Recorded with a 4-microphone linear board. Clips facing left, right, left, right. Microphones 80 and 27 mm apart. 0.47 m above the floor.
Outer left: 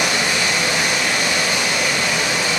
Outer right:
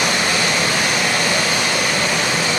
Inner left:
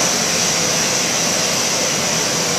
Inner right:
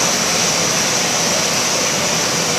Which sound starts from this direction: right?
Running water, at 0.0 s.